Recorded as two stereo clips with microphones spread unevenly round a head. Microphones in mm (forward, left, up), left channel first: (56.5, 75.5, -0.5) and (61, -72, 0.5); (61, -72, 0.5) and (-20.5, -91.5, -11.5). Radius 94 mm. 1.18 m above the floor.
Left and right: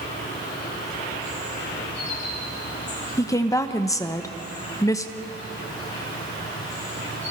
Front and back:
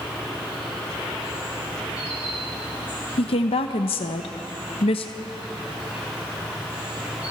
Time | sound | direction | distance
0.0 | an insect | 115° left | 4.5 m
3.2 | a woman speaking | 20° left | 0.9 m